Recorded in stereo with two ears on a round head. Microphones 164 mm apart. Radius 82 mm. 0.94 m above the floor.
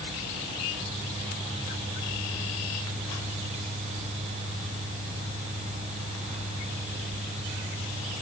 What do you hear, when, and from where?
Only background noise.